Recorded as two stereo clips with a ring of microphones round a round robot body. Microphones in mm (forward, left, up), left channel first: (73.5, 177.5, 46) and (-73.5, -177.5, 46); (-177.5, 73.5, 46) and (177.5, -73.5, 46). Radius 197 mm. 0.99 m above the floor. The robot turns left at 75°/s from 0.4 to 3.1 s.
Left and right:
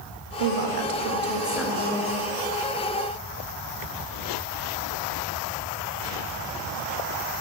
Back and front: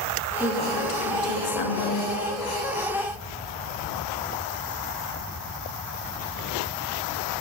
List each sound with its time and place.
0.4 s a woman speaking: 110° right, 1.7 m; by 2.1 s 120° left, 1.7 m